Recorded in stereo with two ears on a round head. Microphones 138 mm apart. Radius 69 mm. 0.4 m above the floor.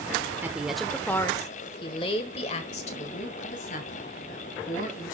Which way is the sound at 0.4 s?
15° right (ahead or behind).